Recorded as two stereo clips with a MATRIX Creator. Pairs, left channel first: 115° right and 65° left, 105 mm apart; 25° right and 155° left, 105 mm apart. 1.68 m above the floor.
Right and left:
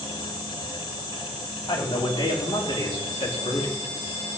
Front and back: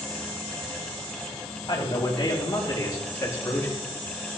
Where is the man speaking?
70° right, 4 m; by 3.8 s 90° right, 3.5 m.